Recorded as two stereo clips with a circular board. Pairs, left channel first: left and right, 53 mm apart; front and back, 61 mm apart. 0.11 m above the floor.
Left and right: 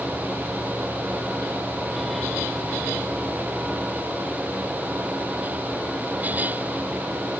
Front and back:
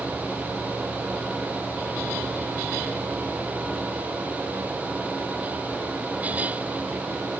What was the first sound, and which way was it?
Only background noise.